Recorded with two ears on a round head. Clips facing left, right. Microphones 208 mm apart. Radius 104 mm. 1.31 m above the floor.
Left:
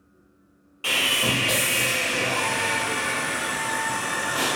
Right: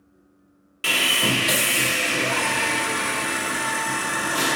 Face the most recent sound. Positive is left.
turn(degrees=-30)  # may be behind; listen again after turning